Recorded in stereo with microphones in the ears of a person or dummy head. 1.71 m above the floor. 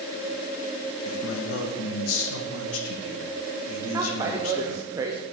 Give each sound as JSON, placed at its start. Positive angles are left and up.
{"t": 1.1, "sound": "a man speaking", "side_deg": 85, "distance_m": 1.9}
{"t": 3.9, "sound": "a woman speaking", "side_deg": -15, "distance_m": 0.8}